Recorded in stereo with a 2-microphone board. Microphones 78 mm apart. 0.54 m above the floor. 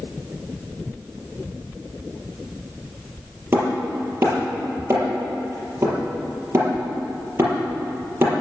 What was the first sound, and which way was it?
Hammering, 30° right (ahead or behind).